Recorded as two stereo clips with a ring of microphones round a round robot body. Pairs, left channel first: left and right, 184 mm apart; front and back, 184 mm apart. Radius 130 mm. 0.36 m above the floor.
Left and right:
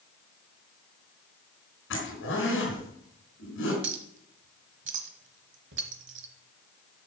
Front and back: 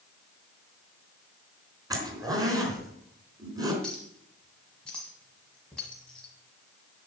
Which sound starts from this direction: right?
A clink, at 3.8 s.